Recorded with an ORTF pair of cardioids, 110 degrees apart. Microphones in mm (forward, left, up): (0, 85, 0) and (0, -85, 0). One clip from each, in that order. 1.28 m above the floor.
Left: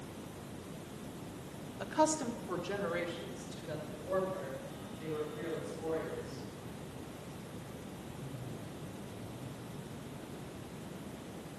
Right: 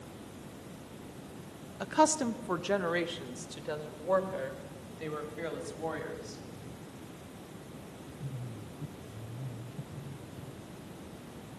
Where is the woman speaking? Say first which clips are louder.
Right 4 dB; 25° right, 0.8 m; by 6.4 s 70° right, 3.5 m.